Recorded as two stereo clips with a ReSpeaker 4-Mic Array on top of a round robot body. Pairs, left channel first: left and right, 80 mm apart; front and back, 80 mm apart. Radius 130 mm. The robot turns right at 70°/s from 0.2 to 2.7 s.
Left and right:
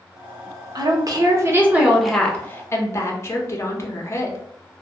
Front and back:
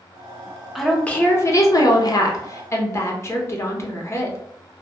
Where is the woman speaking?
90° right, 0.8 m; by 4.4 s 45° left, 0.8 m.